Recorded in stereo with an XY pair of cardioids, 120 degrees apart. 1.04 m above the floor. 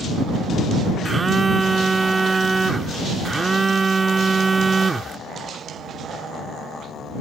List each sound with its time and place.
1.1 s a phone buzzing: 20° right